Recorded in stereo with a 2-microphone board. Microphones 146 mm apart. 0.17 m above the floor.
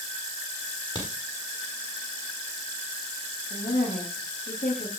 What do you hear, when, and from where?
0.6 s a crack: 35° left (ahead or behind), 6.5 m
3.5 s a woman speaking: 65° left (ahead or behind), 9.5 m